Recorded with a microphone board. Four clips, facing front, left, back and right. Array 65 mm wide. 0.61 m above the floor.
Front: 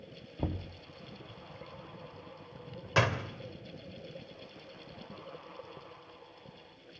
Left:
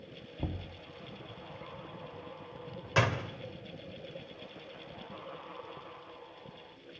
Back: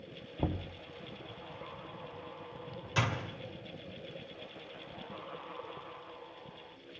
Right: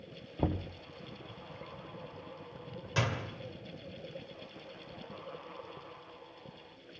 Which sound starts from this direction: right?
Knocking, at 0.4 s.